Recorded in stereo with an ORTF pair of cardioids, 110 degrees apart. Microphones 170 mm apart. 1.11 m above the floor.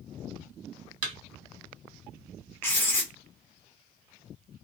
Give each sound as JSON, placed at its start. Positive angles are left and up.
{"t": 1.0, "sound": "a thud", "azimuth_deg": -55, "distance_m": 1.4}
{"t": 2.6, "sound": "writing", "azimuth_deg": 15, "distance_m": 0.9}